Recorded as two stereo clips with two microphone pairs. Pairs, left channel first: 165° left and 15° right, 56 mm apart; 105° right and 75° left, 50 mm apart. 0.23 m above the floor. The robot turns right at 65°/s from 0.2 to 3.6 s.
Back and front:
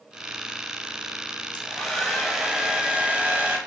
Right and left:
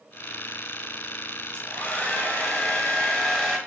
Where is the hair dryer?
130° right, 1.3 m; by 3.6 s 5° left, 1.3 m.